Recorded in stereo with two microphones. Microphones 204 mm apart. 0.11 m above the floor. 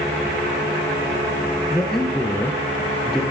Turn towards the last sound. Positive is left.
turn(degrees=0)  # may be behind; listen again after turning